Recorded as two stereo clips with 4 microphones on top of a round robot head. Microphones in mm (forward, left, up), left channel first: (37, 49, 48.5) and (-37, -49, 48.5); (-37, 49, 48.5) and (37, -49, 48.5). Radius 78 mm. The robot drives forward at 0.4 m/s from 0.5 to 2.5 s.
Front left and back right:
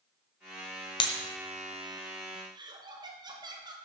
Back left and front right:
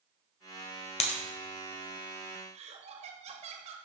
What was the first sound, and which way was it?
Breaking glass, 95° left.